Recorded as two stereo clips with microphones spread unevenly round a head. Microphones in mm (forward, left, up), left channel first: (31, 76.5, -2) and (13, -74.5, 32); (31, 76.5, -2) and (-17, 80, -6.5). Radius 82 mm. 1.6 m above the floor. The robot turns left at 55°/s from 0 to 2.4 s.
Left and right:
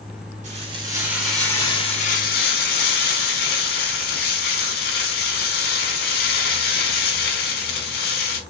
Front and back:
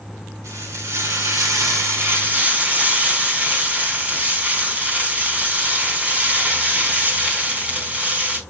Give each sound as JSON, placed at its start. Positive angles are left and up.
{"t": 0.4, "sound": "frying", "azimuth_deg": -135, "distance_m": 5.5}